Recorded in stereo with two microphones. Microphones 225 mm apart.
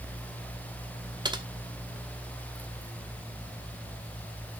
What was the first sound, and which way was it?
Typing on a keyboard, 20° right (ahead or behind).